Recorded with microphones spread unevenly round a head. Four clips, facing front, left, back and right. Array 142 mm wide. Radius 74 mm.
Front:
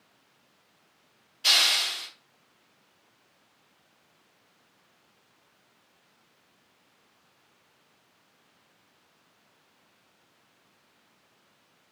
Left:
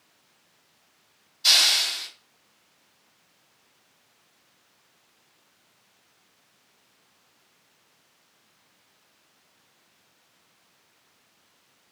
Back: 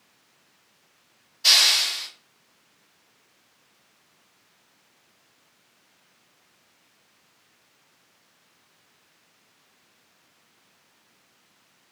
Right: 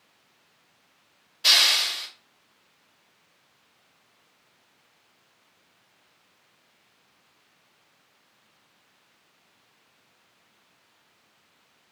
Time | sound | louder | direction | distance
1.4 | a hiss | right 2 dB, back 2 dB | 100° right | 1.1 m